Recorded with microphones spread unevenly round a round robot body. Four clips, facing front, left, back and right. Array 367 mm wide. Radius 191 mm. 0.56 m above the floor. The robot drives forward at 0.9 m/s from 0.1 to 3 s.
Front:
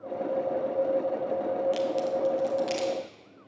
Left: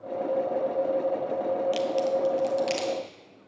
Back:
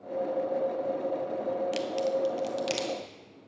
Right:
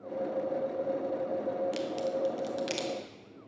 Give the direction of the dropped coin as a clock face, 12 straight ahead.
I don't hear a dropped coin.